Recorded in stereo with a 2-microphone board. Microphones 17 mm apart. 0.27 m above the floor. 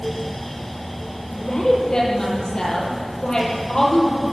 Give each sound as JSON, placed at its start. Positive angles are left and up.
{"t": 1.3, "sound": "a woman speaking", "side_deg": 45, "distance_m": 7.0}